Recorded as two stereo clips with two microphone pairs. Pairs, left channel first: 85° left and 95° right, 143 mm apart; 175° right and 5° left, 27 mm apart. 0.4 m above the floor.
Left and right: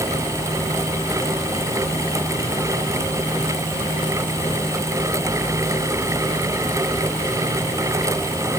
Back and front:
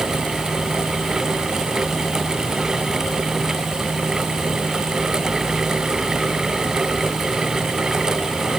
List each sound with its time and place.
Only background noise.